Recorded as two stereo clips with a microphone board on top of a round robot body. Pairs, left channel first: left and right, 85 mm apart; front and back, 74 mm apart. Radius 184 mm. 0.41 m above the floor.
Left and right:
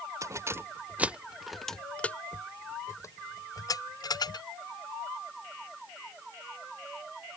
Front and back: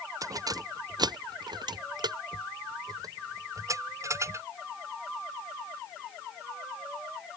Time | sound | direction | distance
0.2 | keys jangling | 140° right | ?